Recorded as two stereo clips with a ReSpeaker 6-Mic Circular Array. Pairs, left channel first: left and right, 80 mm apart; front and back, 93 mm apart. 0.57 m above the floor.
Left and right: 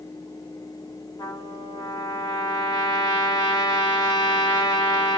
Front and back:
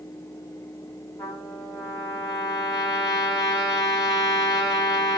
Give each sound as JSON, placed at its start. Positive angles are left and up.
{"t": 1.2, "sound": "a trumpet", "azimuth_deg": 50, "distance_m": 1.6}